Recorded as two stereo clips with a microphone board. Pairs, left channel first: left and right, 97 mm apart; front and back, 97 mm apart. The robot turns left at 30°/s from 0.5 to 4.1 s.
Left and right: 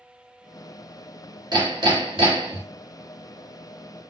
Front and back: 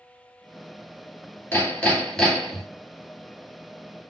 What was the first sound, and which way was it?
Hammering, 65° right.